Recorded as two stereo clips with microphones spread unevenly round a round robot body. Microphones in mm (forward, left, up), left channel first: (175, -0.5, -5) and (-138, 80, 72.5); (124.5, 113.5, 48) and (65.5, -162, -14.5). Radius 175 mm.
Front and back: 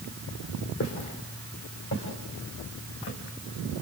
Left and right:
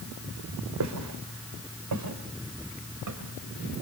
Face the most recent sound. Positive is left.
turn(degrees=-70)